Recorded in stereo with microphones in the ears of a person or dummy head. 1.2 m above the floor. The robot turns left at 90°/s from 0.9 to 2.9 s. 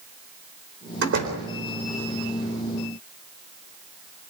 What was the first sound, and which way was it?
A door slam, 105° right.